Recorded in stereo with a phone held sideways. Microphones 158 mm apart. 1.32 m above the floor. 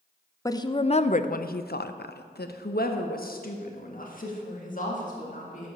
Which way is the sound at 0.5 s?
20° left (ahead or behind).